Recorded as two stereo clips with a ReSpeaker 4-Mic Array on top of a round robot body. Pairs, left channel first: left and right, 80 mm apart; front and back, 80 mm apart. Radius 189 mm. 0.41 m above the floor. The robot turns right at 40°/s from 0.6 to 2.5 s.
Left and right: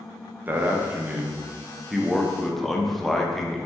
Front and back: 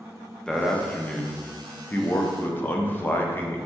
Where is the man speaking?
70° right, 0.7 m; by 3.6 s 5° left, 0.7 m.